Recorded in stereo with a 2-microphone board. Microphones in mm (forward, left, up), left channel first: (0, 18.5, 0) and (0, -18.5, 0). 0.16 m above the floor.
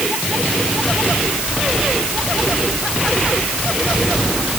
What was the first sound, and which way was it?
Only background noise.